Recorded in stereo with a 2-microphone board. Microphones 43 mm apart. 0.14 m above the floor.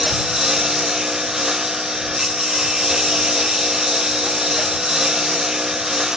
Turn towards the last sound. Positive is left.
turn(degrees=-10)  # may be behind; listen again after turning